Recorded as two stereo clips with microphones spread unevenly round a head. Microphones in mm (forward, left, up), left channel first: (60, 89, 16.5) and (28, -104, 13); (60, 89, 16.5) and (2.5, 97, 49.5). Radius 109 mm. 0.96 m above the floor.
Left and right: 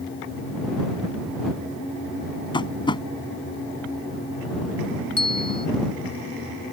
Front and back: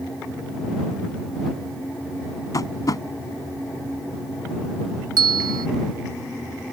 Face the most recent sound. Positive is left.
turn(degrees=145)